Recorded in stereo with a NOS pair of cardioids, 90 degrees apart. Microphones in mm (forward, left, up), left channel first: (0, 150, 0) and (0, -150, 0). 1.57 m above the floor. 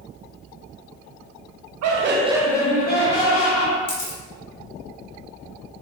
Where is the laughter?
60° right, 0.7 m; by 3.8 s 50° left, 1.7 m.